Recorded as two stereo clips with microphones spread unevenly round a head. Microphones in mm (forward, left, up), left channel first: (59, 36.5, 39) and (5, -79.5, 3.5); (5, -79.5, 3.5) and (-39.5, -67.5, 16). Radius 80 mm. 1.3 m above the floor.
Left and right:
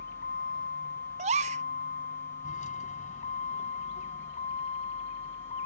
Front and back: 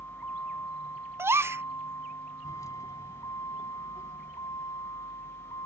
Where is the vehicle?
60° left; by 5.7 s 30° left.